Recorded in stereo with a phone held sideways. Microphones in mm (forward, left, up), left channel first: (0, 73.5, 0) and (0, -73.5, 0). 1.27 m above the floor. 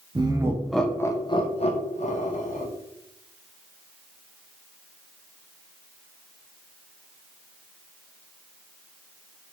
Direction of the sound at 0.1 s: 30° right (ahead or behind).